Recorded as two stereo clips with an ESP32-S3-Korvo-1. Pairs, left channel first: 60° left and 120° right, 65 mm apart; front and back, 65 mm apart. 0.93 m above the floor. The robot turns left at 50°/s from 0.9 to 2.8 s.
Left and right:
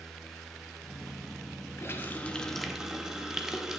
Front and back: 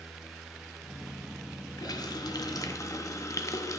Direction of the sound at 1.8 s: 15° left.